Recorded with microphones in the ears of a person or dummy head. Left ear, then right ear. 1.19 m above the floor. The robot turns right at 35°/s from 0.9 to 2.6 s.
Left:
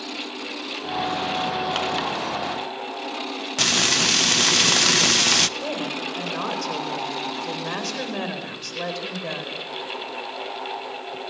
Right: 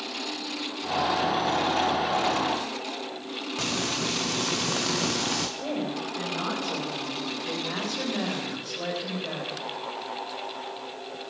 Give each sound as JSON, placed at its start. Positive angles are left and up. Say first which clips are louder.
{"t": 3.6, "sound": "frying", "louder": "left 10 dB", "side_deg": 60, "distance_m": 0.8}
{"t": 5.6, "sound": "a woman speaking", "louder": "left 3 dB", "side_deg": 80, "distance_m": 4.5}